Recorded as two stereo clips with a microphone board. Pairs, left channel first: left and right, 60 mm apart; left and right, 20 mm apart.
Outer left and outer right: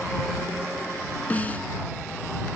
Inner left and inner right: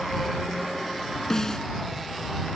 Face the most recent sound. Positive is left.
turn(degrees=25)  # may be behind; listen again after turning